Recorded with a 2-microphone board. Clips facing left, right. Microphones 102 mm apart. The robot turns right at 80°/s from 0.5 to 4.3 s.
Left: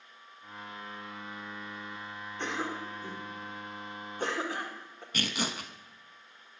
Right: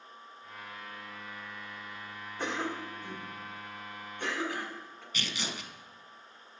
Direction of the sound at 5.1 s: 50° left (ahead or behind).